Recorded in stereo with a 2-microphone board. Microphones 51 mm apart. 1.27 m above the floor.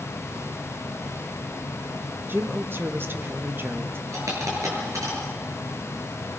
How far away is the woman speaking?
About 1.6 m.